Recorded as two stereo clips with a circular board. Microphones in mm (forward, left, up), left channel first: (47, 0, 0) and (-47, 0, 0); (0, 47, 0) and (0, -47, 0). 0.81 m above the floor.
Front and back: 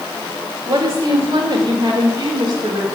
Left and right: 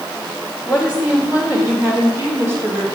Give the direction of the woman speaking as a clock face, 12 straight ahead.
6 o'clock.